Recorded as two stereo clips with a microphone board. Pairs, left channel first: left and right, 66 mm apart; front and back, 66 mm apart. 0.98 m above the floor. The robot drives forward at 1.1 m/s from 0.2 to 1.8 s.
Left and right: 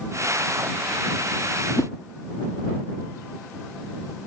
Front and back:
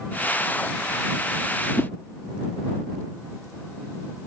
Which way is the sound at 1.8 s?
50° left.